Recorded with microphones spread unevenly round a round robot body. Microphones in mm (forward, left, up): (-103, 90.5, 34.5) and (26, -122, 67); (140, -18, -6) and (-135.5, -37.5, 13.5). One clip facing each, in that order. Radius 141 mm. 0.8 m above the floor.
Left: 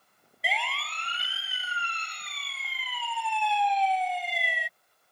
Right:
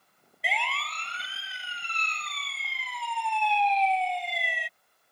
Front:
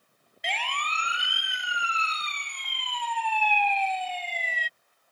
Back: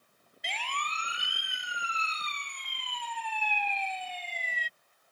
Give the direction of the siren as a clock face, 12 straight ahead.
11 o'clock.